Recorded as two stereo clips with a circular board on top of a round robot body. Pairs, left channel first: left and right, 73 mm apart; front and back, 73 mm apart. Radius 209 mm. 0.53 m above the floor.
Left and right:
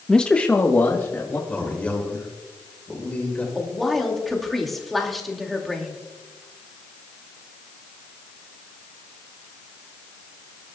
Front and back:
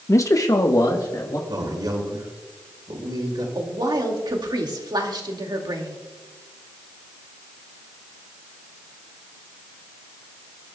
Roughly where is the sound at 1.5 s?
Behind.